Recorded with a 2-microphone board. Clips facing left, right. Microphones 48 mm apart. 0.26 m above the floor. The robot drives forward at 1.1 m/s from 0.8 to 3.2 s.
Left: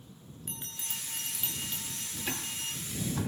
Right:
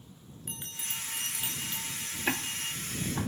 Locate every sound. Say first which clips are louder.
0.5 s a bell: right 2 dB; 15° right (ahead or behind), 3.5 m; by 2.8 s 10° right (ahead or behind), 6 m
2.3 s ticking: right 6 dB; 35° right (ahead or behind), 0.9 m; by 3.3 s 15° right (ahead or behind), 1.9 m